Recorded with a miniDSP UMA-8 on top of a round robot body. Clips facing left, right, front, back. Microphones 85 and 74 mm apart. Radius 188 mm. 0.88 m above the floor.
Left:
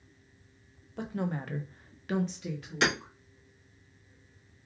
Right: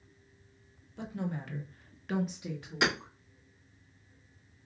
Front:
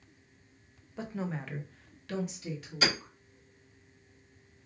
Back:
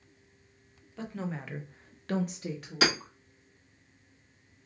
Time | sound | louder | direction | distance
1.0 | a woman speaking | left 3 dB, even | 70° left | 1.2 m
2.8 | hammering | left 2 dB, back 3 dB | 165° right | 1.8 m